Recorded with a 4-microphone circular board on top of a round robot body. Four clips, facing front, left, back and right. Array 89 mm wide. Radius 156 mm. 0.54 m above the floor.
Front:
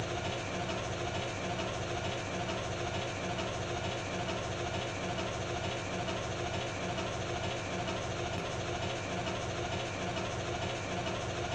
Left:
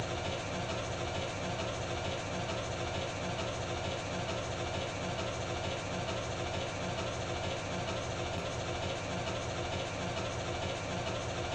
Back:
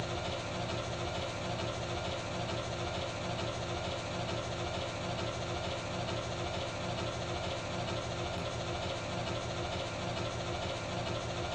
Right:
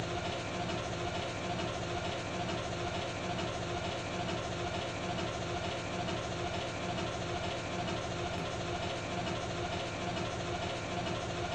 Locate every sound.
0.0 s an engine running: straight ahead, 0.9 m